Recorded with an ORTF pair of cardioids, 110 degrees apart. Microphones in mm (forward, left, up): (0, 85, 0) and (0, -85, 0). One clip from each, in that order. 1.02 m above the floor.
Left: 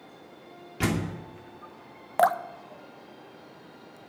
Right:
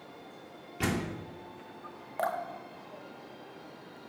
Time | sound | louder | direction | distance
0.8 | a door slam | left 3 dB | 25° left | 2.5 m
2.2 | dripping | left 9 dB | 50° left | 0.7 m